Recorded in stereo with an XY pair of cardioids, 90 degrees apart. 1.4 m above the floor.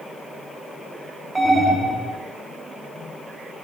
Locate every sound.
1.4 s an alarm: 20° right, 1.1 m